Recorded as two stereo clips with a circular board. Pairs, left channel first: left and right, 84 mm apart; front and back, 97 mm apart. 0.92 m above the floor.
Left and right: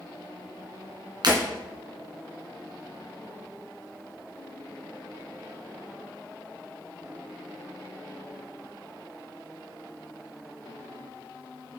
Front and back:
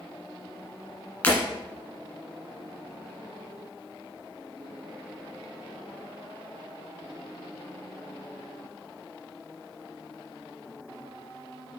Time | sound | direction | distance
1.2 | breaking glass | 75° right | 1.9 m